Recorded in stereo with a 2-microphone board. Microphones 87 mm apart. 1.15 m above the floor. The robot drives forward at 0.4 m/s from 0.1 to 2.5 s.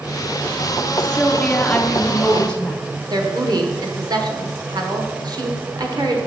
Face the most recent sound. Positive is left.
turn(degrees=-50)  # may be behind; listen again after turning